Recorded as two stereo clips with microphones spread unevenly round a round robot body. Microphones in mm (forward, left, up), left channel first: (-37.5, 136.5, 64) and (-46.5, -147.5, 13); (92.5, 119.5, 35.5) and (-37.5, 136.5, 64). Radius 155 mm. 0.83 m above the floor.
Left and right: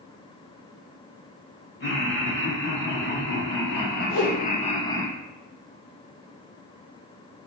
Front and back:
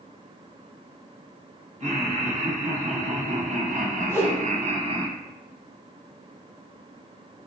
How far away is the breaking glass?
I don't hear breaking glass.